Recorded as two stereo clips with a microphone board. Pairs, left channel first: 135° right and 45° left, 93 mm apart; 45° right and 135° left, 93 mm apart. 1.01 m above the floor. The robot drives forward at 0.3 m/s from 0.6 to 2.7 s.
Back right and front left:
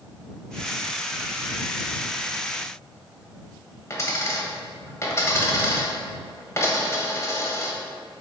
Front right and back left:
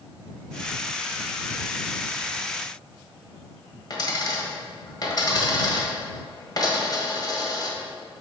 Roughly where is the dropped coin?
Right.